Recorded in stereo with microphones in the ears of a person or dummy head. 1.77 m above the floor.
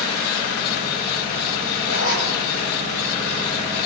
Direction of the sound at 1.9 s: 70° left (ahead or behind).